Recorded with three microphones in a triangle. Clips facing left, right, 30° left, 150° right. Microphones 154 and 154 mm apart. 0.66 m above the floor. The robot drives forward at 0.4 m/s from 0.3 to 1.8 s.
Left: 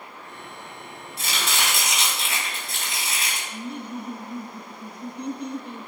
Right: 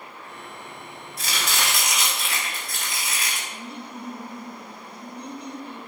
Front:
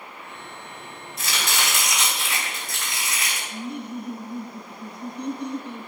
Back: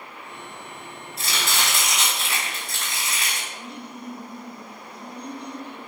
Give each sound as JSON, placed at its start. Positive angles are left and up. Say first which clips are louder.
{"t": 1.2, "sound": "chopping", "louder": "even, even", "azimuth_deg": 150, "distance_m": 5.5}
{"t": 3.5, "sound": "laughter", "louder": "left 4 dB, front 6 dB", "azimuth_deg": 60, "distance_m": 2.5}